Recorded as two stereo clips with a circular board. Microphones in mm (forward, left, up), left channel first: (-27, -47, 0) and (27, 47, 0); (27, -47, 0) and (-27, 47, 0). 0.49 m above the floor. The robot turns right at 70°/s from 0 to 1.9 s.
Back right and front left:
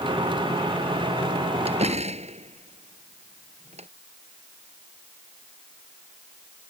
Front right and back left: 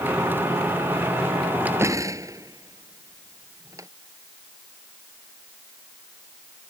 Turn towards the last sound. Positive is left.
turn(degrees=60)